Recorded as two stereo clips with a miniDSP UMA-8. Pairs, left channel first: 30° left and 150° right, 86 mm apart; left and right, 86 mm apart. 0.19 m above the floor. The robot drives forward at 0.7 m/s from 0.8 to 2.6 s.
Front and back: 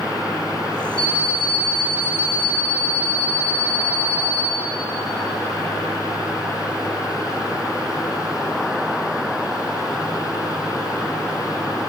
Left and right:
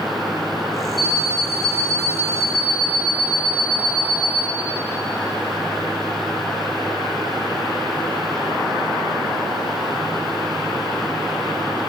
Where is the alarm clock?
105° left, 2 m; by 4.4 s 130° left, 2.5 m.